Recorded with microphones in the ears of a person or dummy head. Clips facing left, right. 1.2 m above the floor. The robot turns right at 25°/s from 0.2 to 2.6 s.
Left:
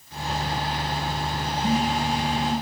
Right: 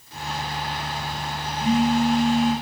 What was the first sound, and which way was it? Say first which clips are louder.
A phone buzzing: right 5 dB; 85° right.